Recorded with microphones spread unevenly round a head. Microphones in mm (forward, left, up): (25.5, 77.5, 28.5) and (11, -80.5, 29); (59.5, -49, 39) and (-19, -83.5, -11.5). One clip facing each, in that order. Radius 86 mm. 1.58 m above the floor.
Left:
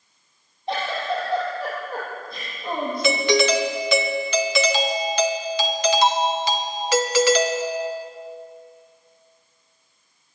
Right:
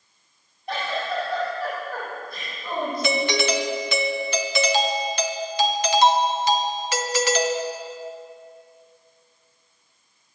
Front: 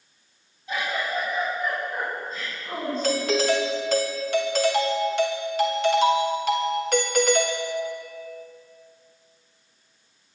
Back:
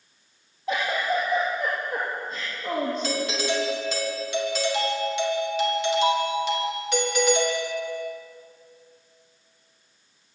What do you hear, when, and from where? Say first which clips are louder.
0.7 s a giggle: left 2 dB, back 3 dB; 150° left, 9.5 m
3.0 s a doorbell: left 5 dB, front 5 dB; 90° left, 1.5 m